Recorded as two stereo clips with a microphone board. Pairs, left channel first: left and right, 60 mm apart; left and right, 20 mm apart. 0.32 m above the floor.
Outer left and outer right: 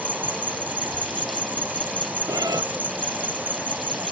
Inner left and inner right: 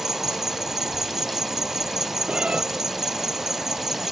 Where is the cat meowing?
80° right.